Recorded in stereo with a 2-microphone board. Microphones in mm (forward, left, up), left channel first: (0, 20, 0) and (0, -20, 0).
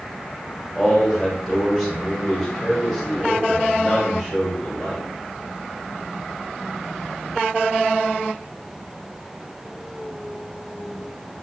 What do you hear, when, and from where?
0.8 s a man speaking: 5° left (ahead or behind), 1.7 m